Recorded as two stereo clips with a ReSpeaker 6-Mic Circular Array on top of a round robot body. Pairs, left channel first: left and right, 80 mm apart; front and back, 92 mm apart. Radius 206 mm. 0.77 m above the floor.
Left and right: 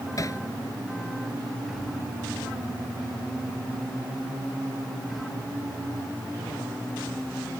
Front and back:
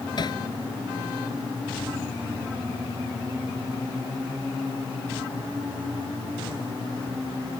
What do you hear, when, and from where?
0.2 s hammering: 40° left